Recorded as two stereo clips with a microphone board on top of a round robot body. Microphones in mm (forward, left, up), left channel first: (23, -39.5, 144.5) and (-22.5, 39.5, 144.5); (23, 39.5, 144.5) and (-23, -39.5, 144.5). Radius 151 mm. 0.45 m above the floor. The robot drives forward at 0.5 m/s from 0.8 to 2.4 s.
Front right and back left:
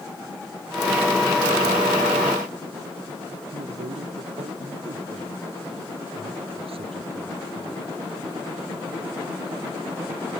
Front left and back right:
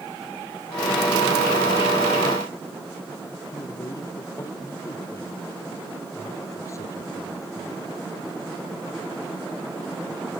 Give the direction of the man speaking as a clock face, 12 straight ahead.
8 o'clock.